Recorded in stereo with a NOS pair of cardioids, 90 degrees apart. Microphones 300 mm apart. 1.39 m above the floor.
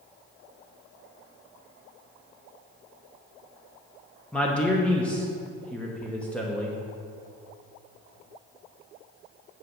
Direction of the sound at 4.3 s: 5° left.